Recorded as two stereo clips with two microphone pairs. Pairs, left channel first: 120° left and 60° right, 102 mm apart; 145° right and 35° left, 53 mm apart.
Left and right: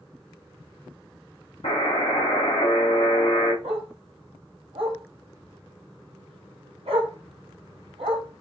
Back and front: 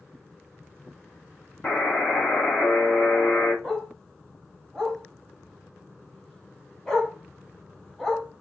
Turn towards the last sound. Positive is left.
turn(degrees=-65)